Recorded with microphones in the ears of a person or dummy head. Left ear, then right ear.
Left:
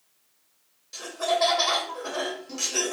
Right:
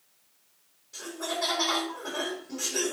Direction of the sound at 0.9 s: 70° left (ahead or behind).